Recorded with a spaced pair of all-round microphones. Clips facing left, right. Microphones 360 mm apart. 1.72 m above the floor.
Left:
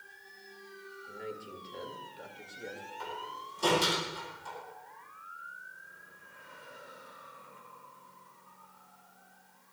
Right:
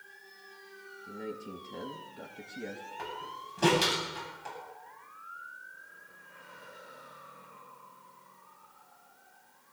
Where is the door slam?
85° right, 9.5 m.